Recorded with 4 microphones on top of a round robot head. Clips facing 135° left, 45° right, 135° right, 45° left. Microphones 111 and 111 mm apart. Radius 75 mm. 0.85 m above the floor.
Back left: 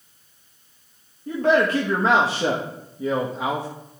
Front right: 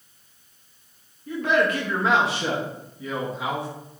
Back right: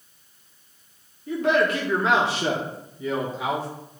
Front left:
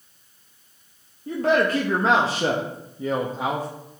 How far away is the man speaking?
About 1.1 m.